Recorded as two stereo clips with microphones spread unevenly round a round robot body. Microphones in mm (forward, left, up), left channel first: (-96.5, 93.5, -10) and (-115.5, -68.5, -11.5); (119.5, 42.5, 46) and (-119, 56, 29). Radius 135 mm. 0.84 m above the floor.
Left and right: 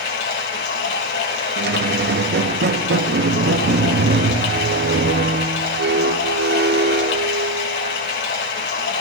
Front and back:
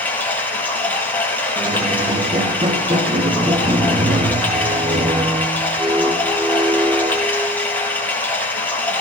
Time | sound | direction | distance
0.0 | running water | 80° left | 3.5 m
1.6 | a squeak | 110° right | 0.6 m